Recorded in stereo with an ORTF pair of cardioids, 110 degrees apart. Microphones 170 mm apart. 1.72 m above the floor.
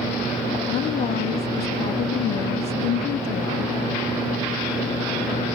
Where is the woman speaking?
70° left.